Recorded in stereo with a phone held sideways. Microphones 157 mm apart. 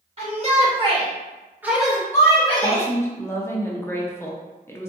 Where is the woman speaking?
15° left (ahead or behind), 0.5 m.